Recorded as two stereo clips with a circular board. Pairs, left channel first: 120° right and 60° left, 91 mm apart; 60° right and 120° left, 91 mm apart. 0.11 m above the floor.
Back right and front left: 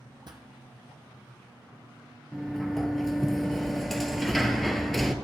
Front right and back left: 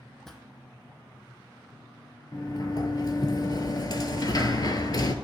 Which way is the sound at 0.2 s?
25° left.